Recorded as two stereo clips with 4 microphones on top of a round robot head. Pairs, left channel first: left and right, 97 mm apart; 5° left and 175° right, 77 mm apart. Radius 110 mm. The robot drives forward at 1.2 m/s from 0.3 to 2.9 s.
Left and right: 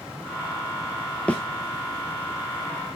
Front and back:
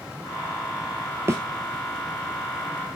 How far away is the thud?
About 0.5 m.